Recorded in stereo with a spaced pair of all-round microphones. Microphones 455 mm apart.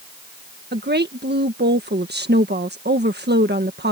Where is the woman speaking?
20° right (ahead or behind).